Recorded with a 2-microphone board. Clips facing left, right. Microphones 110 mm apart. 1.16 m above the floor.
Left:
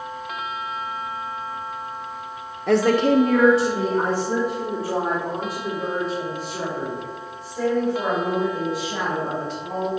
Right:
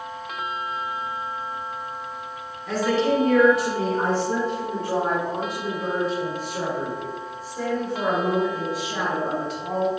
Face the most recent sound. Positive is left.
turn(degrees=-5)  # may be behind; listen again after turning